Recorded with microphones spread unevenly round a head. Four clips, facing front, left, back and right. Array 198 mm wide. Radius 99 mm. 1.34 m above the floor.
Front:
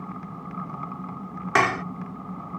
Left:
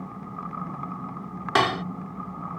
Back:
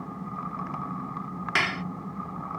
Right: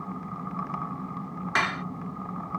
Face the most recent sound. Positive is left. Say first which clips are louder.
# left 6 dB, front 8 dB
turn(degrees=50)